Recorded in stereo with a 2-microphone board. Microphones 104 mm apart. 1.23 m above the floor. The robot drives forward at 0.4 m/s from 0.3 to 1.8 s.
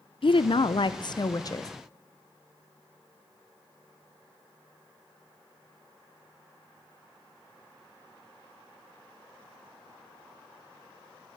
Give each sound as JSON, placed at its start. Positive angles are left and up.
{"t": 0.2, "sound": "a woman speaking", "side_deg": 60, "distance_m": 0.5}